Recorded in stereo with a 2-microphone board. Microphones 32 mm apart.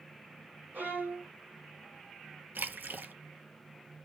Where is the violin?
80° right, 1.7 m.